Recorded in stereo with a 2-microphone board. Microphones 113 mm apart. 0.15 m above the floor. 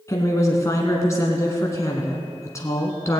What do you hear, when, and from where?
0.1 s a woman speaking: 30° left (ahead or behind), 1.3 m